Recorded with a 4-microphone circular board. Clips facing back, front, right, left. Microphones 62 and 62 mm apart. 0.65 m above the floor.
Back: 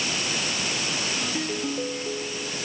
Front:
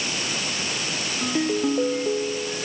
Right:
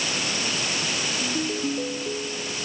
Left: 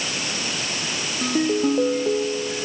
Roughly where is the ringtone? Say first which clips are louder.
Front 6 dB, left 10 dB; ahead left.